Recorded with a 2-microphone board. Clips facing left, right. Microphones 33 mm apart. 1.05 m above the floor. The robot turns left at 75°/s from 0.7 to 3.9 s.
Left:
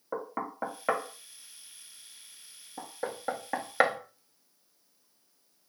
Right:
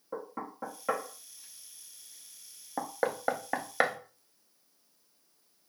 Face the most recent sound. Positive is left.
turn(degrees=15)  # may be behind; listen again after turning